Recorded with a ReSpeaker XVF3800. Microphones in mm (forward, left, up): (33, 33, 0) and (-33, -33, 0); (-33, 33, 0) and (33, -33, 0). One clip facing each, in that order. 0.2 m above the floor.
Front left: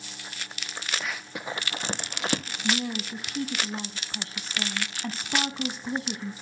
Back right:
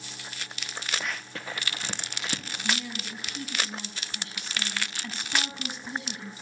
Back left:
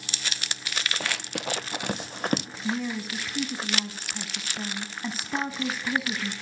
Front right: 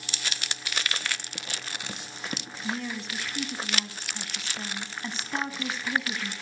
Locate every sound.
1.0 s running footsteps: 135° left, 1.0 m; by 2.5 s 90° left, 1.6 m
2.6 s a woman speaking: 60° left, 1.5 m